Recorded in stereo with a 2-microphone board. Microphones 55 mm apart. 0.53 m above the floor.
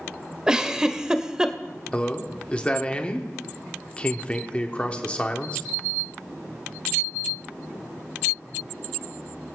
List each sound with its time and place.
0.5 s a giggle: 15° right (ahead or behind), 0.7 m
1.9 s a man speaking: 20° left (ahead or behind), 1.1 m